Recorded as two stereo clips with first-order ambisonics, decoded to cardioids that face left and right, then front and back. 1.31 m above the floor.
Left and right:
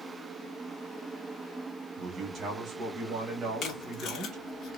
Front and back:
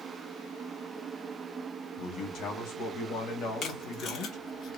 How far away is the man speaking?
About 1.1 m.